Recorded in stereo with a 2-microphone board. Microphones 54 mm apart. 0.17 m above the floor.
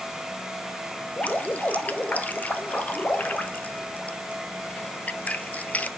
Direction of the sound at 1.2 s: 30° left (ahead or behind).